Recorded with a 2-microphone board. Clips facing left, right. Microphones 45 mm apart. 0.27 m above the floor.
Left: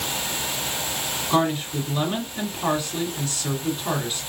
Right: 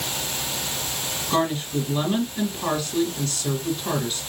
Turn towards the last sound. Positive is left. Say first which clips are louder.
# left 1 dB
turn(degrees=10)  # may be behind; listen again after turning